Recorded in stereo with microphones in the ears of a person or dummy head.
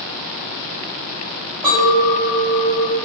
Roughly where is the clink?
Centre.